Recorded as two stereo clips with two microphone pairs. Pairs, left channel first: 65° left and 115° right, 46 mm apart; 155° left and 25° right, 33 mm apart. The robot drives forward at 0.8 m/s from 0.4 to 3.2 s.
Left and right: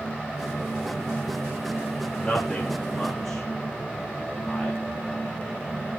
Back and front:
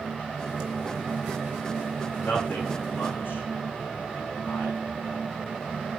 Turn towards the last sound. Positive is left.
turn(degrees=150)